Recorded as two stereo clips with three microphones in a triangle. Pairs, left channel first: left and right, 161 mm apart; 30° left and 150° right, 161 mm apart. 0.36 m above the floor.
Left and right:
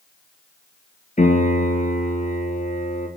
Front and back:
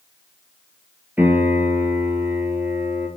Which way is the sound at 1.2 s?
130° left.